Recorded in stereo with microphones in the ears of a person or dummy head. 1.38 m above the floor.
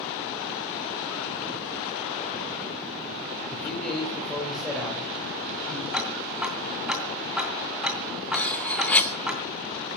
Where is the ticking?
5° right (ahead or behind), 2.5 m.